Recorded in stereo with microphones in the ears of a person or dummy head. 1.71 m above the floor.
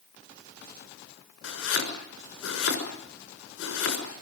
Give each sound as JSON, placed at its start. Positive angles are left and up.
{"t": 1.4, "sound": "chopping", "side_deg": 80, "distance_m": 6.0}